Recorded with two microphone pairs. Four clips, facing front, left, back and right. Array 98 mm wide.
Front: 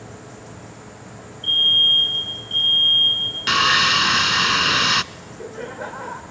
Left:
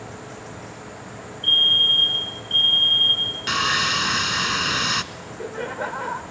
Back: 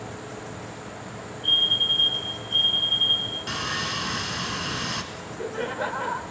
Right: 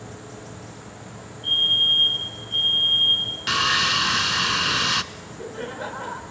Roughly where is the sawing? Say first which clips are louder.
Even, front 13 dB; ahead.